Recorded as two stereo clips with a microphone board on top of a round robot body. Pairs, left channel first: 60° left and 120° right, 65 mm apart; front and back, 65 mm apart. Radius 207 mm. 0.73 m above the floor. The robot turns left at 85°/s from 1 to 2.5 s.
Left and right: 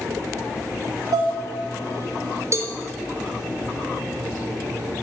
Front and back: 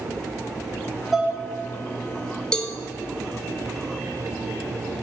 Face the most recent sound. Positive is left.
turn(degrees=-80)